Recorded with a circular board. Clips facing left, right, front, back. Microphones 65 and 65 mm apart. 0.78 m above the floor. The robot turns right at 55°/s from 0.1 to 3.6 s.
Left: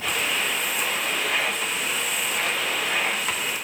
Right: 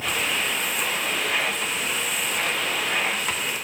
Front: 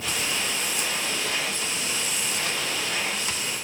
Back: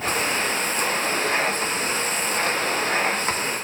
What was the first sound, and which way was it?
Only background noise.